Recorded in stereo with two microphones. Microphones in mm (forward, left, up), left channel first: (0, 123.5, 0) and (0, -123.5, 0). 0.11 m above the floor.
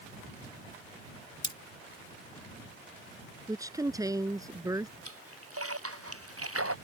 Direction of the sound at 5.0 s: 70° right (ahead or behind).